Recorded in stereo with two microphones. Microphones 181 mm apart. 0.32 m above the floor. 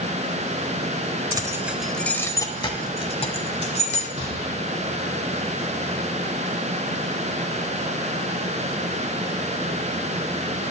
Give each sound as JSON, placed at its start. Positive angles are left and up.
{"t": 1.3, "sound": "keys jangling", "side_deg": -20, "distance_m": 0.8}
{"t": 4.2, "sound": "a gunshot", "side_deg": -40, "distance_m": 6.0}